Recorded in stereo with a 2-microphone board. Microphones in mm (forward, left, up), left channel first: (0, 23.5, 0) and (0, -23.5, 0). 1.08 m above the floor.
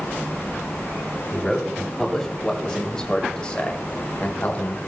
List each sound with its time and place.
1.3 s a man speaking: 5° left (ahead or behind), 2.5 m; by 4.9 s 40° left (ahead or behind), 1.4 m